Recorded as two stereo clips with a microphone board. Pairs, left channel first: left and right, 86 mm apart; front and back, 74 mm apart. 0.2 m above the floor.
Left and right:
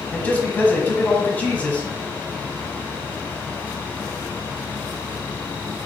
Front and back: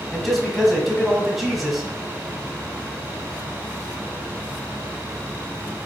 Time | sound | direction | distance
0.1 | a man speaking | 90° left | 1.1 m